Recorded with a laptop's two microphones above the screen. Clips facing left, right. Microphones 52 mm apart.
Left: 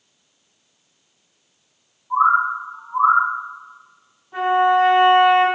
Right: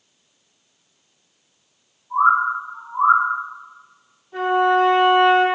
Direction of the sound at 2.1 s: 30° left (ahead or behind).